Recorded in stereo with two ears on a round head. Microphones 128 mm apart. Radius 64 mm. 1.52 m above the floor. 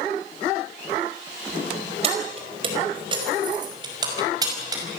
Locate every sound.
2.0 s keys jangling: 45° right (ahead or behind), 4.5 m; by 4.8 s 25° right (ahead or behind), 6 m